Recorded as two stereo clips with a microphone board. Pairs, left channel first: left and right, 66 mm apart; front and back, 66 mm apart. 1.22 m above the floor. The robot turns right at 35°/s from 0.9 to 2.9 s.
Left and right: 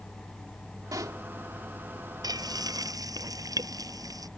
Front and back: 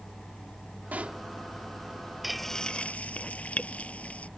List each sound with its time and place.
0.9 s a pop: 115° right; by 1.2 s 105° right
2.2 s frying: 95° right; by 4.3 s 70° right